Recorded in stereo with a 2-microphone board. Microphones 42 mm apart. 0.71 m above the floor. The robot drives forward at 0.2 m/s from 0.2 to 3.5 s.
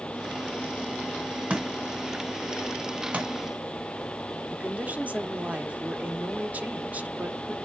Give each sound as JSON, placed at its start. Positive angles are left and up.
{"t": 1.5, "sound": "a thud", "side_deg": -35, "distance_m": 2.5}
{"t": 4.5, "sound": "a woman speaking", "side_deg": -35, "distance_m": 1.4}